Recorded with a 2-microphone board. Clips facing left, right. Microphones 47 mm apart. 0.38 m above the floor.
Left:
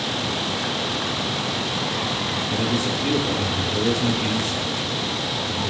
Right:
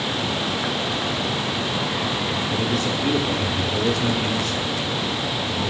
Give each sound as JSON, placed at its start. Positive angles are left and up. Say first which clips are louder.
{"t": 2.5, "sound": "a man speaking", "louder": "left 1 dB", "side_deg": -5, "distance_m": 1.0}